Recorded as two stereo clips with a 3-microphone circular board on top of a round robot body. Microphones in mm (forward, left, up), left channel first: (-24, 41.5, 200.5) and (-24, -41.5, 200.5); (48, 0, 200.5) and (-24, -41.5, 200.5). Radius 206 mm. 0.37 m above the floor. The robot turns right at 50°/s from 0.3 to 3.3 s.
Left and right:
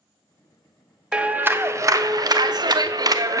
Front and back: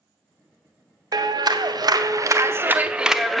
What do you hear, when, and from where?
1.1 s a clap: 170° right, 0.9 m; by 3.4 s 60° right, 0.9 m